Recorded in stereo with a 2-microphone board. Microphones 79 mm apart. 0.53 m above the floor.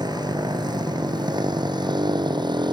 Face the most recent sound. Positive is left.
turn(degrees=-65)  # may be behind; listen again after turning